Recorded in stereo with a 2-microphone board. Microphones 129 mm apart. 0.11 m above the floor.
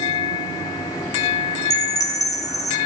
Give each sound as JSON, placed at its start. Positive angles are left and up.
{"t": 1.7, "sound": "a chime", "side_deg": 25, "distance_m": 1.1}